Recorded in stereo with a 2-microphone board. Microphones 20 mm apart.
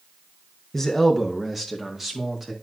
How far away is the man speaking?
About 0.9 m.